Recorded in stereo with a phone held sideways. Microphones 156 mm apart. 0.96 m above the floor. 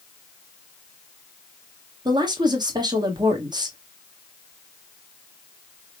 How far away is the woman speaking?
About 1.1 m.